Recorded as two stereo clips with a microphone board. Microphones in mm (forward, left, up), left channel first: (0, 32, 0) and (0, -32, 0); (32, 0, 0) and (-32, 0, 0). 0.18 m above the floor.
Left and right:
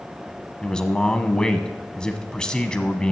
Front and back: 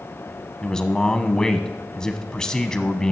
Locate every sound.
0.6 s a man speaking: 45° left, 1.0 m